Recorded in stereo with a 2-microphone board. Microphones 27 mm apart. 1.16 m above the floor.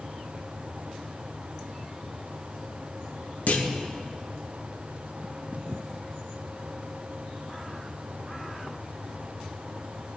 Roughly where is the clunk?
Left.